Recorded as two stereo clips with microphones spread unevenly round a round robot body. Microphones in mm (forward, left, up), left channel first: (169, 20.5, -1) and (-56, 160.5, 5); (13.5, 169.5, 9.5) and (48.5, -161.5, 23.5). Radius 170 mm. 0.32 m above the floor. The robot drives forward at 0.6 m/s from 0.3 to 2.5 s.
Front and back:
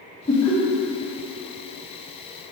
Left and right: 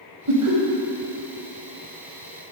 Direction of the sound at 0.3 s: 110° right.